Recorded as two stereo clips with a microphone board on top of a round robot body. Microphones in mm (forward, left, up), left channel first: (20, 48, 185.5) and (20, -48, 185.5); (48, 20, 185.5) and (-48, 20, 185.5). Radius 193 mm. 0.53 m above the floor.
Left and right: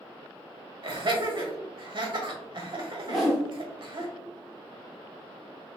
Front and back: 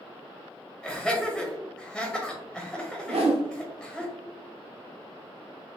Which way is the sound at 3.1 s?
Straight behind.